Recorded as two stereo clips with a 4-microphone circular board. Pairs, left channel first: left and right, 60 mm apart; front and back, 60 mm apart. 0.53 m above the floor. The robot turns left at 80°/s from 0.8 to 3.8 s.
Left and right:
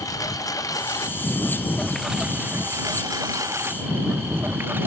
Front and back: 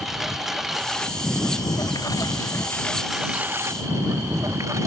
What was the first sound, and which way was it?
A lawn mower, 95° left.